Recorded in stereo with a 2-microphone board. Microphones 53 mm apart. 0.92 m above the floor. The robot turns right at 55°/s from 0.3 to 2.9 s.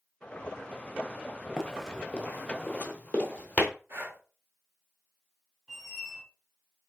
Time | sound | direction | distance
1.6 | running footsteps | 10° right (ahead or behind) | 0.9 m
3.9 | breathing | 50° right (ahead or behind) | 0.7 m
5.7 | a squeak | 5° right (ahead or behind) | 1.2 m